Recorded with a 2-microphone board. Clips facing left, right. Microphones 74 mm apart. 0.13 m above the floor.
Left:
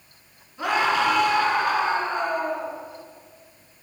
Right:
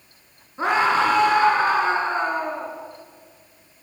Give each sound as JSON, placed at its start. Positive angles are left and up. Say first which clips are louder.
{"t": 0.6, "sound": "a scream", "louder": "right 3 dB", "side_deg": -35, "distance_m": 1.4}